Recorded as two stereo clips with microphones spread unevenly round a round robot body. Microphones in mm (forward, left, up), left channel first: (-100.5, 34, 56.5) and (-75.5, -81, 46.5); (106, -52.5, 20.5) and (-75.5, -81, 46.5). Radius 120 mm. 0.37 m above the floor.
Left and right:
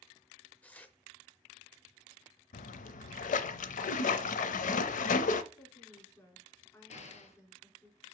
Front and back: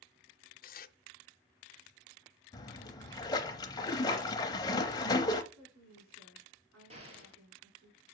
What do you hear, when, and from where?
0.6 s tearing paper: 20° left, 0.6 m
2.5 s a splash: 80° left, 0.5 m
5.5 s a woman speaking: 170° left, 4.5 m
6.9 s an explosion: 125° left, 1.4 m